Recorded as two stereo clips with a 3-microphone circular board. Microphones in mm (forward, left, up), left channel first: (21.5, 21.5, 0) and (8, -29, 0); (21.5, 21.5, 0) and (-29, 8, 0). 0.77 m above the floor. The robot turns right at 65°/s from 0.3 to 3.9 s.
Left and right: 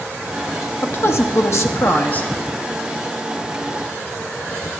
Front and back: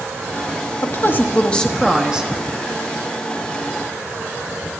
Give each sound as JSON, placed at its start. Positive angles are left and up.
{"t": 0.8, "sound": "a woman speaking", "azimuth_deg": 35, "distance_m": 0.9}